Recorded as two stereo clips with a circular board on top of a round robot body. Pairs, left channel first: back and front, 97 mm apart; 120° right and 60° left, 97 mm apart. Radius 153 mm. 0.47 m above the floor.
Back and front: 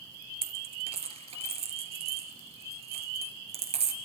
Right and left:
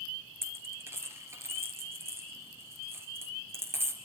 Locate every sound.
0.4 s a dropped coin: 5° right, 4 m